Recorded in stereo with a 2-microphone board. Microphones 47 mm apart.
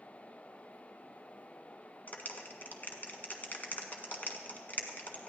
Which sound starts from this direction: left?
A clap, at 2.1 s.